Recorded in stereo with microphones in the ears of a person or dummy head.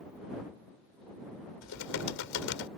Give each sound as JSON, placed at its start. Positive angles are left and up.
{"t": 1.6, "sound": "typing on a keyboard", "side_deg": 80}